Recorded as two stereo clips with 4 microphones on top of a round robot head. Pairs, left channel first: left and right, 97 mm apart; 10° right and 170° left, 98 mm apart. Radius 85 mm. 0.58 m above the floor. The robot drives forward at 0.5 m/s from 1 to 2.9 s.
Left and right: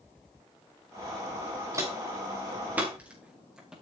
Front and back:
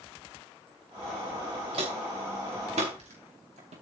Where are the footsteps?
150° right, 4 m; by 3.7 s 175° right, 5.5 m.